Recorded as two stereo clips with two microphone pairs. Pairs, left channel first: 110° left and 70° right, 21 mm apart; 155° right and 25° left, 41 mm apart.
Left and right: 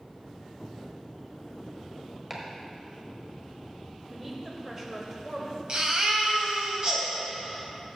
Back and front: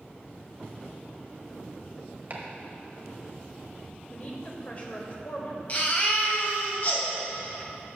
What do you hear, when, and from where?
2.3 s chopping: straight ahead, 1.3 m
4.1 s a woman speaking: 130° right, 1.4 m
5.7 s a baby crying: 110° right, 1.6 m